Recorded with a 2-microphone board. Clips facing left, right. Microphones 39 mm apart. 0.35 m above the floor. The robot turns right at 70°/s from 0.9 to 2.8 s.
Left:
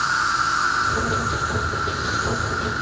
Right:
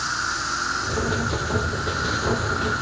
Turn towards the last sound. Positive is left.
turn(degrees=-135)